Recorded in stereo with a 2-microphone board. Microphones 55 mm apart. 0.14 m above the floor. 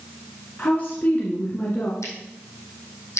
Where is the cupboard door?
No cupboard door in this recording.